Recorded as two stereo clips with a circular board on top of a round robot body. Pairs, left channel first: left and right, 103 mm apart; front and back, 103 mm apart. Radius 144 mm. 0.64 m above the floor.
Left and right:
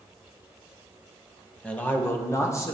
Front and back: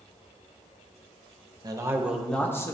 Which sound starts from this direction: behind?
A man speaking, at 1.6 s.